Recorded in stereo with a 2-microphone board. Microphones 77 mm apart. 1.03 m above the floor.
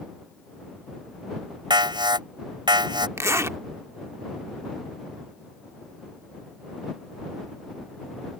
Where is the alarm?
75° right (ahead or behind).